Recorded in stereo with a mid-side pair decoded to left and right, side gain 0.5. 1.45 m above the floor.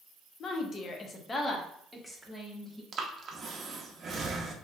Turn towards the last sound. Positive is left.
turn(degrees=-40)